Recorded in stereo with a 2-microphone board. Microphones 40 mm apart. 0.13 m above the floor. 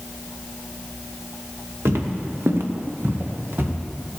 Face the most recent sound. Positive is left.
turn(degrees=-60)  # may be behind; listen again after turning